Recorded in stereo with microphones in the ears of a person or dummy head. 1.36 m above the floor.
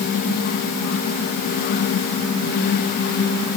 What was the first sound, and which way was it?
Only background noise.